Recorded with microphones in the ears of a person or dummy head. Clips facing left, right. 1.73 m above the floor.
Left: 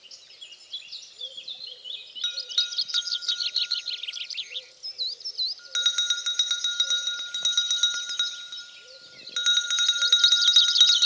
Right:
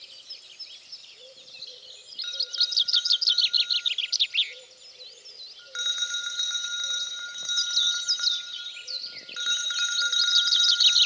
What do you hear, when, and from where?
2.2 s a bell: 45° left (ahead or behind), 2.0 m